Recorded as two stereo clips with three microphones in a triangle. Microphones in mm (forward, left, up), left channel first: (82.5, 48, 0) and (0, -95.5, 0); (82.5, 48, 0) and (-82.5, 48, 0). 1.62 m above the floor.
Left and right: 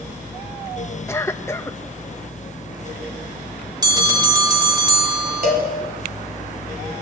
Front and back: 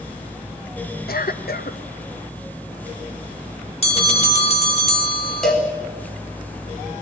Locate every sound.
1.1 s a cough: 15° right, 1.5 m
3.8 s a bell: 55° right, 2 m
5.4 s a cowbell: 85° right, 4.5 m